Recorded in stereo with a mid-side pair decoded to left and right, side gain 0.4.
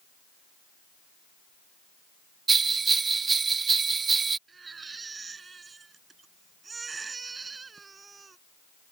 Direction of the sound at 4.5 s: 35° right.